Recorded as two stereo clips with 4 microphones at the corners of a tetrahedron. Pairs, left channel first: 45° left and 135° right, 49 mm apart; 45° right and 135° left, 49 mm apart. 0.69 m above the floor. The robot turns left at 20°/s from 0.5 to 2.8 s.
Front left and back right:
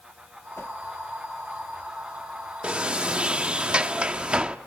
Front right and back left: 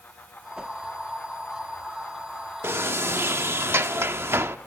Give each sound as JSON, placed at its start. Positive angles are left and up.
{"t": 0.6, "sound": "a whoosh", "azimuth_deg": 65, "distance_m": 1.1}
{"t": 2.6, "sound": "a sliding door", "azimuth_deg": 160, "distance_m": 0.9}